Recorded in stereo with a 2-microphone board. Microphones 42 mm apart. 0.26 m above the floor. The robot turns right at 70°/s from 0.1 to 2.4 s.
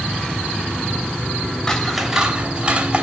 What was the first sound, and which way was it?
Scissors, 165° left.